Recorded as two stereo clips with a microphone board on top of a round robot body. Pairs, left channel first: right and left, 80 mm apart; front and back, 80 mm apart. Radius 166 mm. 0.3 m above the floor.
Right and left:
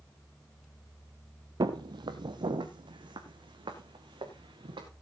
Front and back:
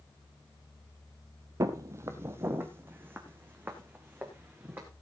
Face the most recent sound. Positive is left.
turn(degrees=110)